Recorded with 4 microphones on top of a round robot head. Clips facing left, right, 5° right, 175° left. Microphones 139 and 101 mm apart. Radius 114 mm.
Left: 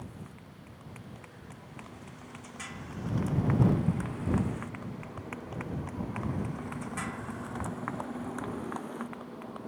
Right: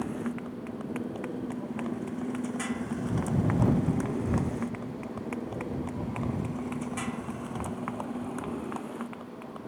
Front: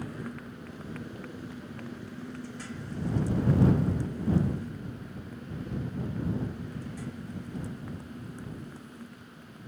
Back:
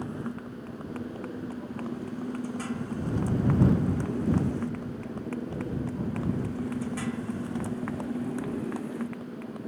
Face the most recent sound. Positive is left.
turn(degrees=180)